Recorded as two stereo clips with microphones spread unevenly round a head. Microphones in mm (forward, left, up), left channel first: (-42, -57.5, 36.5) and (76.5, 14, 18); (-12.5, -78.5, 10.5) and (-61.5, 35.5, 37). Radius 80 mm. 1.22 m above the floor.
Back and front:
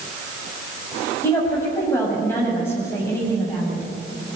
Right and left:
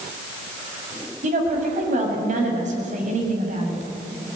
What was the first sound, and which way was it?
A woman speaking, 135° left.